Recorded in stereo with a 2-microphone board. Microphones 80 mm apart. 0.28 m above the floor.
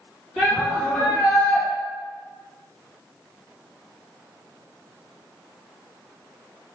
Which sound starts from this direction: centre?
A shout, at 0.4 s.